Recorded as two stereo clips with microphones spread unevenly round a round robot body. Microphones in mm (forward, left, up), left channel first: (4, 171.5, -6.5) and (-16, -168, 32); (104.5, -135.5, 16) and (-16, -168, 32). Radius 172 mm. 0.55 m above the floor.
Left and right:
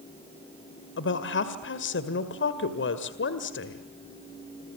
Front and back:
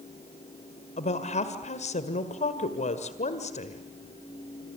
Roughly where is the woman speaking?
Ahead left.